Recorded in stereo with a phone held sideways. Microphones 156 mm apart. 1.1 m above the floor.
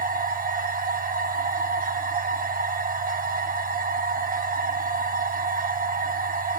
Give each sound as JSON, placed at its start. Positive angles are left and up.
{"t": 0.0, "sound": "a machine running", "side_deg": -60, "distance_m": 1.1}